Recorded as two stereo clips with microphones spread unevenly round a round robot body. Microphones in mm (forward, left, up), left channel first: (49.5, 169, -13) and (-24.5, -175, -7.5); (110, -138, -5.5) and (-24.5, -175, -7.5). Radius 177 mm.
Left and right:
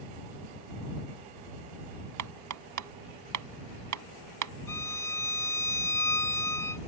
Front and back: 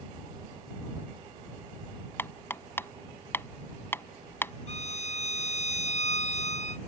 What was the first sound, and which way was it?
Hammering, 60° right.